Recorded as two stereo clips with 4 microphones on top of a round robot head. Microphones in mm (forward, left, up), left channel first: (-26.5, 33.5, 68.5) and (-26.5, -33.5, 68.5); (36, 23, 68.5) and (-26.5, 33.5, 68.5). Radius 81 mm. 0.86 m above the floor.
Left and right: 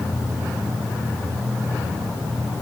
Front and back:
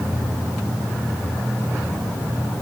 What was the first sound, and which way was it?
Only background noise.